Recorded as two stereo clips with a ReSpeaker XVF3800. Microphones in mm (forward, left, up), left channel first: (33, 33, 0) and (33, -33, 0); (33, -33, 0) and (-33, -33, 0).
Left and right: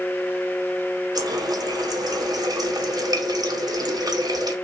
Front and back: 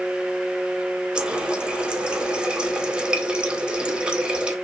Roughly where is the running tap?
Right.